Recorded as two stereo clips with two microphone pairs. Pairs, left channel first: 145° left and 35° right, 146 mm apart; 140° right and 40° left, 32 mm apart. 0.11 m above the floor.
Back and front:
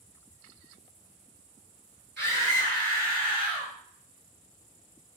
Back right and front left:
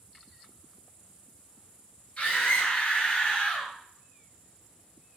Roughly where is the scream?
Behind right.